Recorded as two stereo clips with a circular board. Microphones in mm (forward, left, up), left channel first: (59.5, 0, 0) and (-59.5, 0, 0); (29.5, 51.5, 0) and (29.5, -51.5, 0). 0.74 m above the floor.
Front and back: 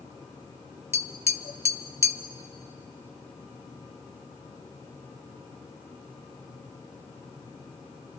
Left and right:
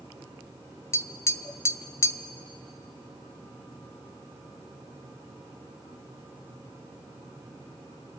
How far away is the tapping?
About 0.6 m.